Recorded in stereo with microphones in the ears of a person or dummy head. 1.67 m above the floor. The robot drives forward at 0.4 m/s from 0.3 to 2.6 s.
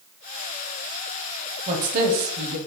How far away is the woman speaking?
About 0.9 m.